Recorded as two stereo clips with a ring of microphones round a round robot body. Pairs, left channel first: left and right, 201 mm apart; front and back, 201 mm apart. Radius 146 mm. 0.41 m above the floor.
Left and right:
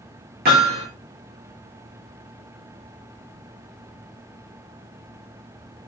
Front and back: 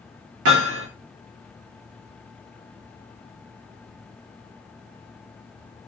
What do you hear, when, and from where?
0.5 s hammering: 150° right, 6.5 m